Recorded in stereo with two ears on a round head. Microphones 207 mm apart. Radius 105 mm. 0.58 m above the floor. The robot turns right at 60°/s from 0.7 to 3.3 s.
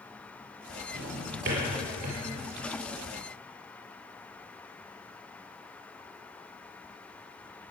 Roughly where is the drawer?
Centre.